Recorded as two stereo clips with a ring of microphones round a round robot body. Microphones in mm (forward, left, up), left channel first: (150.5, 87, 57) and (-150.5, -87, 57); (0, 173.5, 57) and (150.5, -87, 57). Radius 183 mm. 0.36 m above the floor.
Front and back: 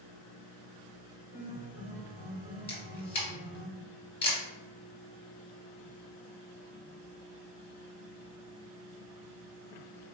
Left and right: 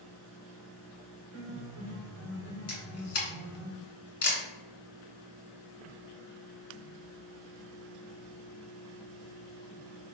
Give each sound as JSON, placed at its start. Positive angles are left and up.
{"t": 1.3, "sound": "a piano", "azimuth_deg": -100, "distance_m": 1.9}
{"t": 2.7, "sound": "a camera shutter", "azimuth_deg": 100, "distance_m": 2.0}